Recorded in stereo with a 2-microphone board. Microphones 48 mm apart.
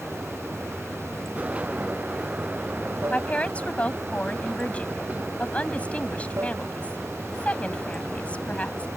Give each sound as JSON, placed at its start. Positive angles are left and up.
{"t": 0.0, "sound": "running water", "side_deg": -75}
{"t": 3.1, "sound": "a woman speaking", "side_deg": 25}